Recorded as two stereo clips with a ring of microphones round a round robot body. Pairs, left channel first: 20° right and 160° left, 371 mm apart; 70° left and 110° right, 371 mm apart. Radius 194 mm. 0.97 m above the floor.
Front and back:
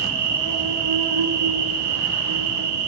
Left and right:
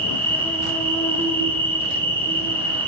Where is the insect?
150° left, 4.5 m.